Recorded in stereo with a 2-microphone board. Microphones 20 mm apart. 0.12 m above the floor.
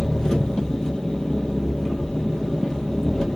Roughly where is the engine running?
Left.